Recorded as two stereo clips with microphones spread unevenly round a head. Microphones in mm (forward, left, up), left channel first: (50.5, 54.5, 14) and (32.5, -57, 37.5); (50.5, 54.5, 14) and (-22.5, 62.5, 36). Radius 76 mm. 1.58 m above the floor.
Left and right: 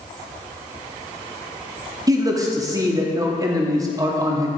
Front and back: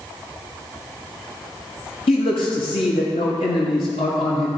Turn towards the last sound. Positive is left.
turn(degrees=-45)